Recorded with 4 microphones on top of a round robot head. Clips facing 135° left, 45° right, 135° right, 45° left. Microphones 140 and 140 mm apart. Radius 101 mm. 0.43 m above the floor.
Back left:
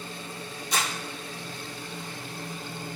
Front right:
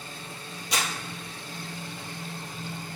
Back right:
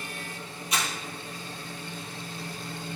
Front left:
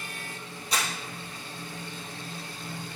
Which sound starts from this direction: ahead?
Crumpling, at 0.7 s.